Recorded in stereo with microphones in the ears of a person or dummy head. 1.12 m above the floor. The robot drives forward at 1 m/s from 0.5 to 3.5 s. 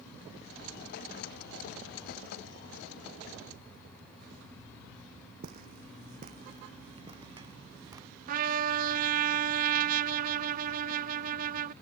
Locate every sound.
5.4 s footsteps: 50° right (ahead or behind); by 8.1 s 20° right (ahead or behind)
8.3 s a trumpet: 45° right (ahead or behind)